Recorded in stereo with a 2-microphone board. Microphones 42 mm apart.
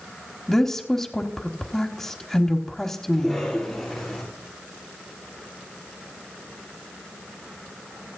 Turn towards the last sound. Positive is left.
turn(degrees=0)  # may be behind; listen again after turning